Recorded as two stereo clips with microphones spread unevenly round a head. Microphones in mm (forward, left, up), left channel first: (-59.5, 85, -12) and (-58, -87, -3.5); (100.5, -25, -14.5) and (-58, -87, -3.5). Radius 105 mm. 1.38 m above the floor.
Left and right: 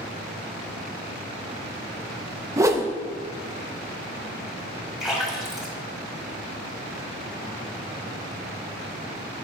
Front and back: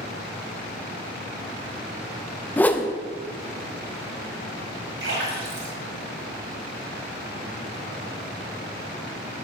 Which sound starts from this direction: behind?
A splash, at 5.0 s.